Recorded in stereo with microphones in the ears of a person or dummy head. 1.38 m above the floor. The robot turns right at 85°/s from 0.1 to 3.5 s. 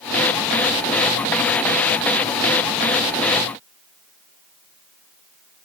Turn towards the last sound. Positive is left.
No sound to turn to.